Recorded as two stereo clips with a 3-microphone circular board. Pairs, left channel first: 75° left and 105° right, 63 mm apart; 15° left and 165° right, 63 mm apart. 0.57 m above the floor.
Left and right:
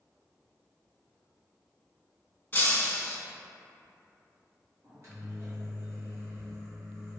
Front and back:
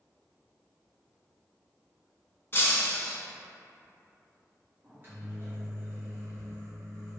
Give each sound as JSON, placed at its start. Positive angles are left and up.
{"t": 2.5, "sound": "breaking glass", "azimuth_deg": 35, "distance_m": 0.5}
{"t": 4.8, "sound": "a microwave", "azimuth_deg": -120, "distance_m": 1.0}